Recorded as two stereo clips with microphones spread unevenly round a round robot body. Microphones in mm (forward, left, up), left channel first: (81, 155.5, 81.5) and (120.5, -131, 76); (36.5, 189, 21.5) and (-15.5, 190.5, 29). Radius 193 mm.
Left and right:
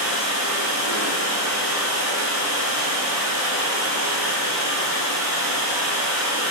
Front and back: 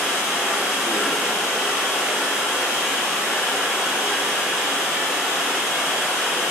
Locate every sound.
0.0 s running water: 130° right, 2.5 m